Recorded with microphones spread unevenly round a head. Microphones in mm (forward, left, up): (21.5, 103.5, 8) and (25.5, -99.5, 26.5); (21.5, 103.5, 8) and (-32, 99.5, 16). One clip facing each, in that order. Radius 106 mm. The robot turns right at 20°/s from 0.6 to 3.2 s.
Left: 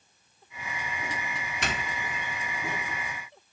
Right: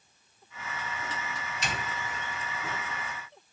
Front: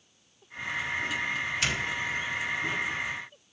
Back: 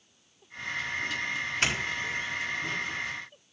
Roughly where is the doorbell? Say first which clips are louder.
Left 2 dB, even; behind left.